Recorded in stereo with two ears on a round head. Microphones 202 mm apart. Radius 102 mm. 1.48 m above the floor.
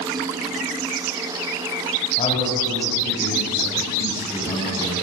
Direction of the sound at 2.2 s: 30° left (ahead or behind).